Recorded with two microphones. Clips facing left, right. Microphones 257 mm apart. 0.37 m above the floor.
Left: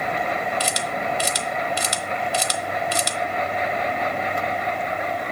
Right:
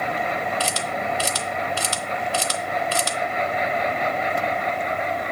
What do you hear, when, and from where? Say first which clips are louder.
0.6 s a camera shutter: even; 20° left (ahead or behind), 0.7 m